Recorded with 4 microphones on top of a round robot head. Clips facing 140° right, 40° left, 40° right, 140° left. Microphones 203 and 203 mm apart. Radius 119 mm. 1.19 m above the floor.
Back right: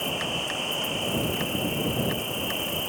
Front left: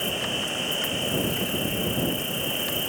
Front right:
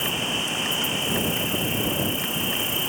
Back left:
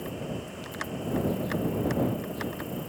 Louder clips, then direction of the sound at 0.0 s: Front left 1 dB, front right 4 dB; 40° right.